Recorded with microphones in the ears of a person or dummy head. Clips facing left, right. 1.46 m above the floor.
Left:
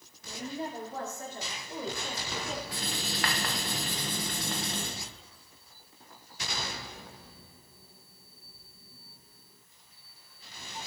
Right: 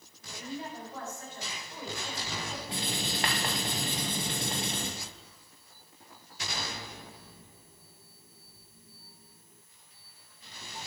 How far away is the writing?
About 1.9 m.